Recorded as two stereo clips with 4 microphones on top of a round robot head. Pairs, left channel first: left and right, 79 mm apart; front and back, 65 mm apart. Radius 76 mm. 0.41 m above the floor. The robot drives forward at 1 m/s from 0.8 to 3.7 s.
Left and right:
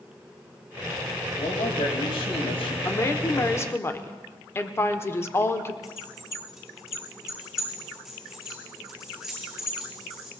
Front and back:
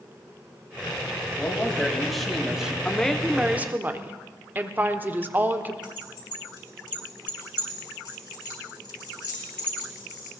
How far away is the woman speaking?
About 1.1 m.